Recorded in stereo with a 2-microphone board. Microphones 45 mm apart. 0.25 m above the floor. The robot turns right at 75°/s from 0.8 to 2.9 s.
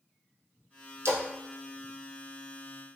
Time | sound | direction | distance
1.1 | a splash | 80° right | 1.4 m